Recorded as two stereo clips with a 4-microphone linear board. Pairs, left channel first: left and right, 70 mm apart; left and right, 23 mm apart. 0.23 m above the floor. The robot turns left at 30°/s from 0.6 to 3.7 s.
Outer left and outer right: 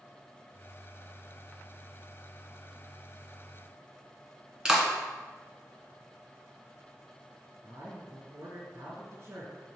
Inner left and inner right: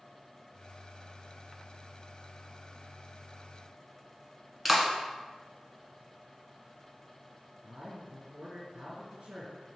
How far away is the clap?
About 2 m.